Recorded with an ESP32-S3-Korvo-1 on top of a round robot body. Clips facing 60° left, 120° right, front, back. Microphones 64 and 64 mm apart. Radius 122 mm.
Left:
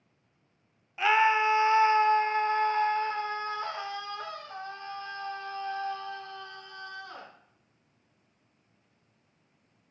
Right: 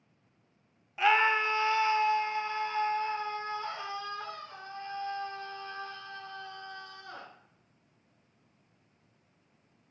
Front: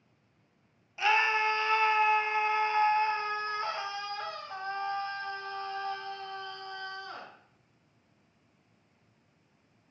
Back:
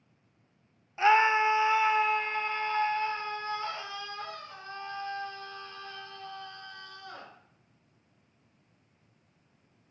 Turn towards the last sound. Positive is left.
turn(degrees=40)